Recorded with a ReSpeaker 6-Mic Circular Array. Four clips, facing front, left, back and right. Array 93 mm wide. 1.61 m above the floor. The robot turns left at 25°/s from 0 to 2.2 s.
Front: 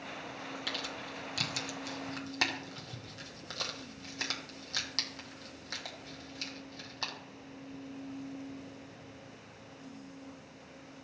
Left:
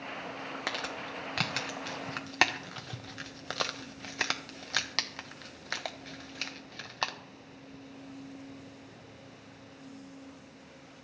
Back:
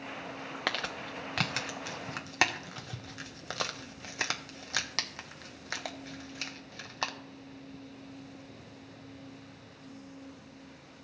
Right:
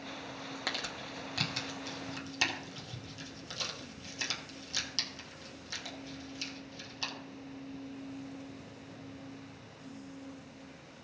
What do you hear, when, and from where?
0.7 s crumpling: 165° left, 0.8 m; by 7.1 s 125° left, 0.8 m